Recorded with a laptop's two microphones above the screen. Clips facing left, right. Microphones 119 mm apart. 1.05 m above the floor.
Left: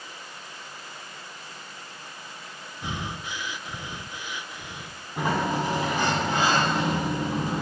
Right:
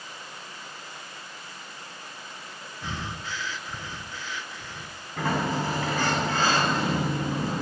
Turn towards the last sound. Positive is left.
turn(degrees=20)  # may be behind; listen again after turning